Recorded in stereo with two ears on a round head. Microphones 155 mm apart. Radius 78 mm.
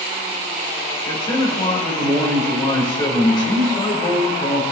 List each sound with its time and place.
1.1 s a man speaking: 30° left (ahead or behind), 4 m